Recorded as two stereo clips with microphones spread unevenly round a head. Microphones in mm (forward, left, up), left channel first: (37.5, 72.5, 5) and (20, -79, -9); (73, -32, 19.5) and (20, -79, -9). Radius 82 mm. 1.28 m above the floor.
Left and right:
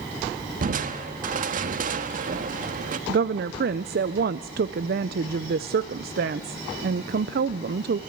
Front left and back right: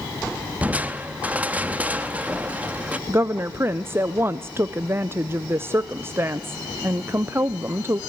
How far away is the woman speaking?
About 0.6 m.